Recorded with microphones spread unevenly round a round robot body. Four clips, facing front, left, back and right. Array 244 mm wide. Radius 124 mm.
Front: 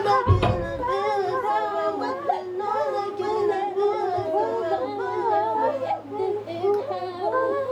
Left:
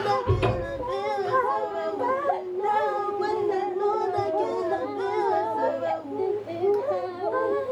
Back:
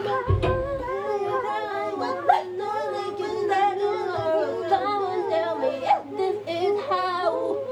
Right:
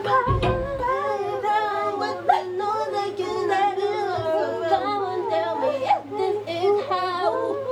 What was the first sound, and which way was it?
A cupboard door, straight ahead.